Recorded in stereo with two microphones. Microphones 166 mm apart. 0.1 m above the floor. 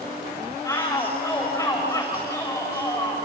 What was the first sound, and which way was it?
A shout, 15° left (ahead or behind).